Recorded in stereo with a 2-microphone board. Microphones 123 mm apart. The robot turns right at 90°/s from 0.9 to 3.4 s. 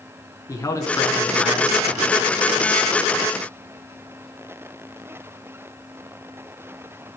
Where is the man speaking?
140° left, 2.5 m; by 2.2 s 100° right, 2.5 m.